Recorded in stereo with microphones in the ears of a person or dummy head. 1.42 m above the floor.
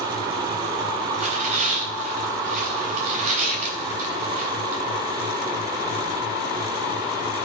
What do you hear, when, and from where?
1.1 s tearing paper: 40° right (ahead or behind), 3.5 m